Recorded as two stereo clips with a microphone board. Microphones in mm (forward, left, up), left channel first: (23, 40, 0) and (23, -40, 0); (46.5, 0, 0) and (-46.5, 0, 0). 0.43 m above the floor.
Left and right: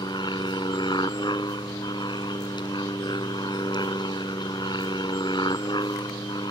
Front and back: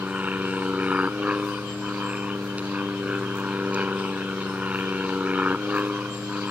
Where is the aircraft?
105° left.